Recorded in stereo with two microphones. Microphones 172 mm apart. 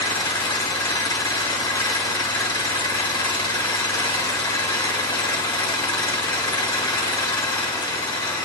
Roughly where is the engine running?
Left.